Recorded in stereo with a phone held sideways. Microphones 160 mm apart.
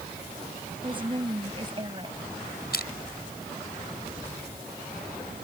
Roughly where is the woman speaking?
Right.